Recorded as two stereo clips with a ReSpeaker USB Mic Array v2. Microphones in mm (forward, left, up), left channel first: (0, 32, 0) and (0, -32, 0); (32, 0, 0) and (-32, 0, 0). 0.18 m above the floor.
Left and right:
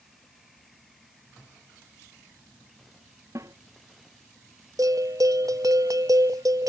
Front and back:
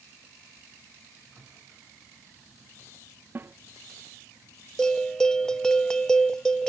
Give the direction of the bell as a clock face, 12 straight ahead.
3 o'clock.